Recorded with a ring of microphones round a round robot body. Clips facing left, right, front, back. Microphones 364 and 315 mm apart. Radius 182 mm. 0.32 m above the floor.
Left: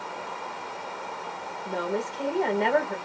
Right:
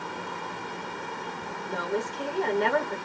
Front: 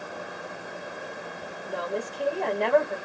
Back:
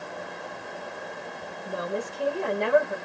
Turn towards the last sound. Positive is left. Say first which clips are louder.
# left 1 dB, even
turn(degrees=-125)